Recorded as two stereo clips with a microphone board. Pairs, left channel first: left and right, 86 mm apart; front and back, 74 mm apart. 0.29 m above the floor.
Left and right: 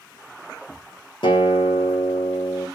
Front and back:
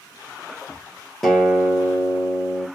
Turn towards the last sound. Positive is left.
turn(degrees=85)